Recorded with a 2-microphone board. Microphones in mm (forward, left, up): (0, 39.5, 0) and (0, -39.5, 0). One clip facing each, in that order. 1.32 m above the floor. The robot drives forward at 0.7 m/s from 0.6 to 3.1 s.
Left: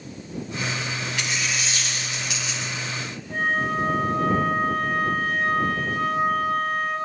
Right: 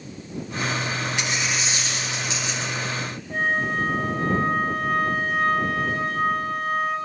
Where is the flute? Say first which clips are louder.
Even; centre (ahead or behind), 2.5 m.